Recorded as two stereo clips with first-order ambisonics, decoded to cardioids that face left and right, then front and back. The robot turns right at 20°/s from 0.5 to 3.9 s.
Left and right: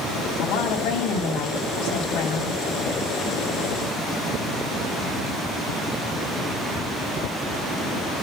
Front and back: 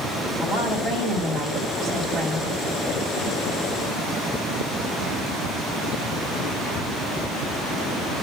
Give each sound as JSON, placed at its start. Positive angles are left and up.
{"t": 0.4, "sound": "a woman speaking", "azimuth_deg": 65, "distance_m": 4.0}